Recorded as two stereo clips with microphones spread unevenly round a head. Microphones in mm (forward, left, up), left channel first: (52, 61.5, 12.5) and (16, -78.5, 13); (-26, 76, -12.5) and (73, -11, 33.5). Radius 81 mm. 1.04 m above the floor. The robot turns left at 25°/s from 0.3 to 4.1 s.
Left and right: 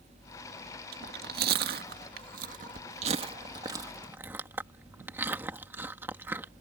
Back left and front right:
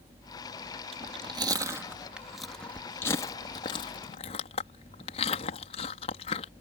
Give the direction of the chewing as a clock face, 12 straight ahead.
3 o'clock.